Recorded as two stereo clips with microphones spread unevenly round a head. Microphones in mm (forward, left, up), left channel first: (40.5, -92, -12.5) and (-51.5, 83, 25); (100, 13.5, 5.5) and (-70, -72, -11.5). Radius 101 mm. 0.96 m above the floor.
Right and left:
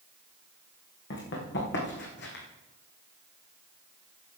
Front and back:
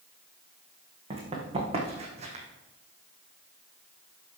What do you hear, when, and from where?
1.1 s running footsteps: 95° right, 4.5 m; by 2.5 s 100° right, 2.5 m